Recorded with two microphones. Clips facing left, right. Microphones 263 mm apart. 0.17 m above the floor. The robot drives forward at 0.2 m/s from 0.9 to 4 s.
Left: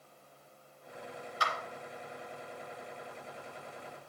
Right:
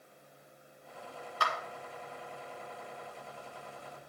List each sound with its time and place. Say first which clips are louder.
1.4 s a clap: right 2 dB; 55° right (ahead or behind), 2 m